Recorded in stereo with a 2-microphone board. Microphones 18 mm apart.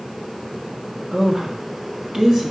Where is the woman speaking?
40° right (ahead or behind), 1.3 m.